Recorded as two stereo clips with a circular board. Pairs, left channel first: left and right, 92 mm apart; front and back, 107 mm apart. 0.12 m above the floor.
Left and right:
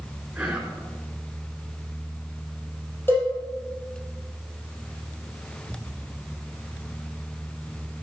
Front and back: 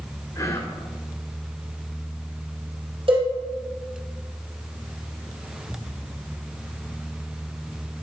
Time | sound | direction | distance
0.3 | whispering | 25° right | 1.7 m
3.1 | a cowbell | 155° left | 4.5 m